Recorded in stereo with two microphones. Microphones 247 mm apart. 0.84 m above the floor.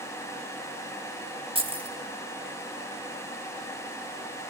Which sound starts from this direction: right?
Keys jangling, at 1.6 s.